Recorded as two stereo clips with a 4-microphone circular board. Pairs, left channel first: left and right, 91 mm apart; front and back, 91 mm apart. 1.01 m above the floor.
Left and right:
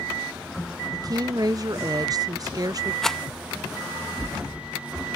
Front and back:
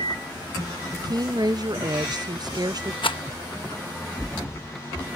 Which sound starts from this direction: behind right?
A woman speaking, at 0.9 s.